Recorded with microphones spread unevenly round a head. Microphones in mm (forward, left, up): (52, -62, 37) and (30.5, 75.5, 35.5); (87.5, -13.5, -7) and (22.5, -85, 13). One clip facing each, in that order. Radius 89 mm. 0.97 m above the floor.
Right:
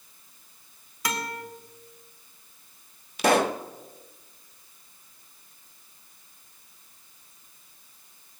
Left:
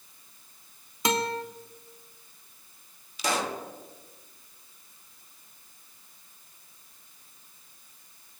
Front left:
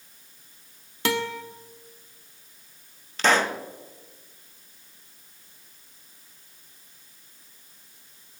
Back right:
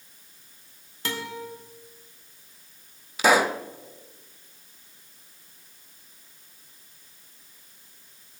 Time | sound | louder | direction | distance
1.1 | a guitar | left 5 dB, front left 7 dB | 30° left | 1.2 m
3.2 | a pop | right 8 dB, back right 2 dB | 50° right | 0.8 m